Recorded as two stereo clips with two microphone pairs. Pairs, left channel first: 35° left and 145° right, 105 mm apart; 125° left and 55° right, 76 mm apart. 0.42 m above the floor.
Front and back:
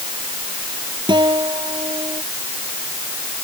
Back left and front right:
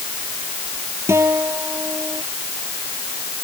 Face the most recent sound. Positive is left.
turn(degrees=-105)